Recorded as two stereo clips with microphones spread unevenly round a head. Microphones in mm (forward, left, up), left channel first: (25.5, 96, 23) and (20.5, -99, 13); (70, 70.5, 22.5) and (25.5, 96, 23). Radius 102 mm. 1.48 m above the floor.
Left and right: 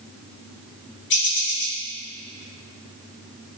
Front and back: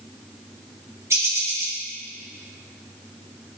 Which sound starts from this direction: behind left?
A bird, at 1.1 s.